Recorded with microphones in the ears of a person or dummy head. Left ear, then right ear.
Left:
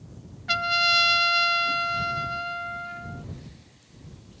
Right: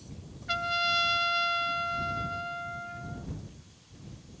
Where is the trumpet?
20° left (ahead or behind).